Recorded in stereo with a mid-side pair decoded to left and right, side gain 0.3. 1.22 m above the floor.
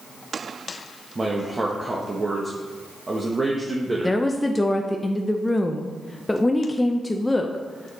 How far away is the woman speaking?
About 0.6 m.